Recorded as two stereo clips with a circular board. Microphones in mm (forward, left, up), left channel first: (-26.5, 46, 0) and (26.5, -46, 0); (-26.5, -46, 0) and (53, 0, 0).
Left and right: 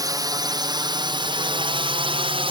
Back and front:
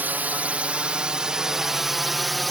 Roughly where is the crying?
No crying in this recording.